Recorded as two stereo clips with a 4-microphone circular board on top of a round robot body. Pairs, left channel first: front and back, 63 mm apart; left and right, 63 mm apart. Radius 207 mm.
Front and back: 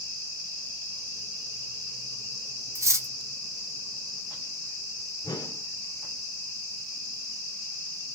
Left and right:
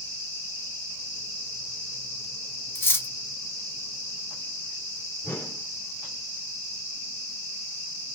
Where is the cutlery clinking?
145° left, 0.8 m.